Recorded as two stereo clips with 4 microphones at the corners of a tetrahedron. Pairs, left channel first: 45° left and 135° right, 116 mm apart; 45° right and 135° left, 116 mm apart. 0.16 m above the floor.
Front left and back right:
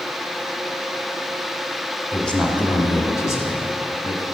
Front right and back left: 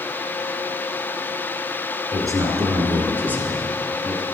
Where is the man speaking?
125° left, 1.4 m; by 4.2 s 50° left, 1.6 m.